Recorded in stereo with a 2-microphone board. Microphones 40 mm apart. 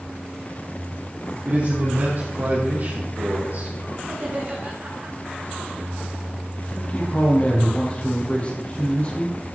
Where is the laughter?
50° right (ahead or behind), 4.5 m.